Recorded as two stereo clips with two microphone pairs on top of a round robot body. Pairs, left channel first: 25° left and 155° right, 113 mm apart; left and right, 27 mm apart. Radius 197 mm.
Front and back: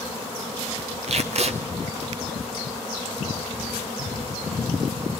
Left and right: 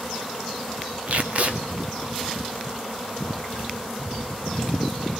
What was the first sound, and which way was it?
Tape being pulled, 130° right.